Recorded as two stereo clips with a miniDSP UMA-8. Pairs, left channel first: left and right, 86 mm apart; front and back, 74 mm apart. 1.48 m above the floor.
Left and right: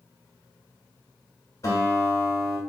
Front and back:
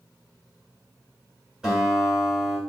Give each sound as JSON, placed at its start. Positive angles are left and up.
{"t": 1.6, "sound": "a guitar", "azimuth_deg": 100, "distance_m": 1.5}